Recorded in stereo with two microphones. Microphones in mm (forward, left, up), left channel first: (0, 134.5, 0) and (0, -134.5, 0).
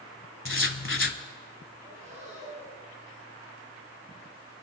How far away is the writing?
About 1.0 m.